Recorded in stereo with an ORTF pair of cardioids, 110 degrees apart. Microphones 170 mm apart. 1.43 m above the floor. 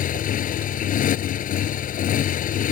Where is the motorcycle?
60° left.